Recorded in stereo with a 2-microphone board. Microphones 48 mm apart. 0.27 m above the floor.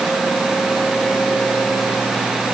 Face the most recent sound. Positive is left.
No sound to turn to.